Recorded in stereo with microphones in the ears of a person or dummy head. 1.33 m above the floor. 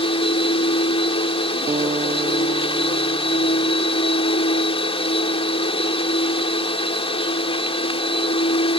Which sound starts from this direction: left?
A machine running, at 0.0 s.